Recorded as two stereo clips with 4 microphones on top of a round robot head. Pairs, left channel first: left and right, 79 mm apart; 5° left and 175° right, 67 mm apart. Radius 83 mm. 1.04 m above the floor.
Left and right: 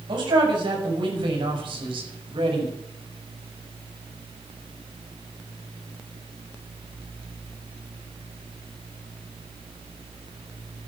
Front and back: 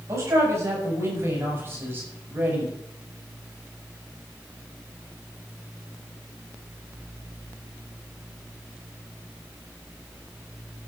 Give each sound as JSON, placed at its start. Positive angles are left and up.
{"t": 0.1, "sound": "a man speaking", "azimuth_deg": -120, "distance_m": 6.0}